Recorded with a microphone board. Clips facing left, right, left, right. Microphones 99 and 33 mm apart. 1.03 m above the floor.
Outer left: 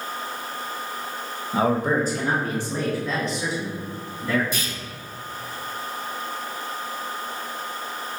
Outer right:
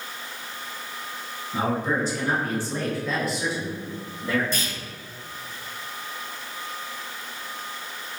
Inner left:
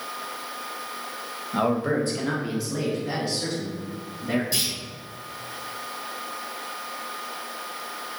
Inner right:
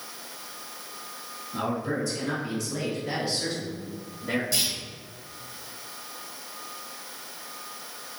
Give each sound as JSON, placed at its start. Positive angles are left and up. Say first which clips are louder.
{"t": 1.5, "sound": "a man speaking", "louder": "outer left 4 dB, inner left 6 dB", "side_deg": 70, "distance_m": 0.9}
{"t": 4.5, "sound": "a clunk", "louder": "even, inner left 1 dB", "side_deg": 15, "distance_m": 1.4}